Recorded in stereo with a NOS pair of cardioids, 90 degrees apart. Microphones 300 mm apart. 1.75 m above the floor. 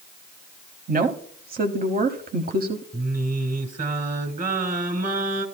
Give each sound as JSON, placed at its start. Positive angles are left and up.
{"t": 0.9, "sound": "a woman speaking", "azimuth_deg": -30, "distance_m": 1.0}
{"t": 2.9, "sound": "singing", "azimuth_deg": -25, "distance_m": 2.0}